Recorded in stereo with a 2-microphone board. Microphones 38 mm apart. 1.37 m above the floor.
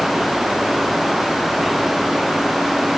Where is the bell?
No bell in this recording.